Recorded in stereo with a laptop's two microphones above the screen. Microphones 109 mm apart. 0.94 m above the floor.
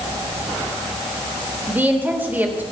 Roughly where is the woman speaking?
Centre.